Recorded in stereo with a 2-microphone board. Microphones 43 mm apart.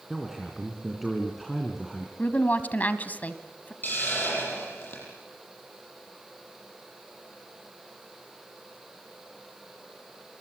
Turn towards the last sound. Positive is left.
turn(degrees=45)  # may be behind; listen again after turning